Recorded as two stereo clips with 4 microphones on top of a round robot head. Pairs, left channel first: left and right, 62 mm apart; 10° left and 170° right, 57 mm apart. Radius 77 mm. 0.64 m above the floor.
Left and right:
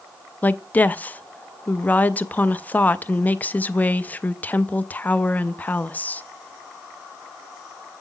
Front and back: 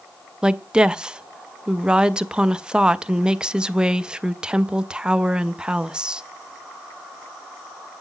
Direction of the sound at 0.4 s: 125° left.